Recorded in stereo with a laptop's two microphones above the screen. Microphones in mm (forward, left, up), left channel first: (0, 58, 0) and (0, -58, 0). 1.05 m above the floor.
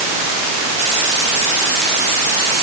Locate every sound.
Only background noise.